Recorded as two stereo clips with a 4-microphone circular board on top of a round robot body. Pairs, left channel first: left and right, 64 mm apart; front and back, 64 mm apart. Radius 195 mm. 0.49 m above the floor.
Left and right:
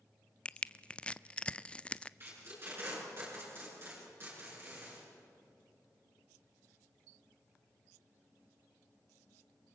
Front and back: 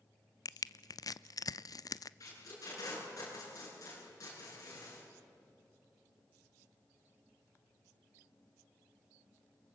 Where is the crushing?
15° left, 0.6 m.